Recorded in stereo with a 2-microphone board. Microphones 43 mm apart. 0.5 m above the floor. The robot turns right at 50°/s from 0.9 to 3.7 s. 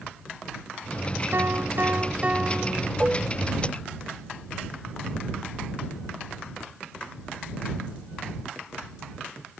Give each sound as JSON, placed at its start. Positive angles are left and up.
{"t": 1.3, "sound": "a piano", "azimuth_deg": -85}
{"t": 3.0, "sound": "dishes clattering", "side_deg": -30}